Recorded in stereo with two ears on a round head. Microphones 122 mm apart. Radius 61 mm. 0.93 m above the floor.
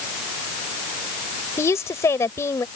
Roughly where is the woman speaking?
Left.